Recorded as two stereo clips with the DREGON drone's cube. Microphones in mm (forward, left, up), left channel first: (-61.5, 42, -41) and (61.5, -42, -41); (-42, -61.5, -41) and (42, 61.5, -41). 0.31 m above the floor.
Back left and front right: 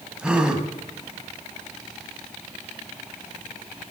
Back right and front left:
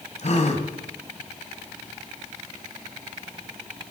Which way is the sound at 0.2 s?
115° right.